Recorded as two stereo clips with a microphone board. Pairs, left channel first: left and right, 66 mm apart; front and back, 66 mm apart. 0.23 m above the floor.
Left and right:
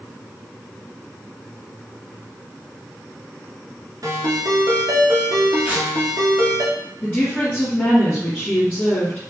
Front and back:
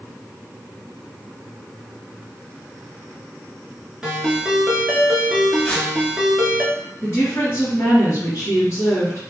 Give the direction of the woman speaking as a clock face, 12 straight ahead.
11 o'clock.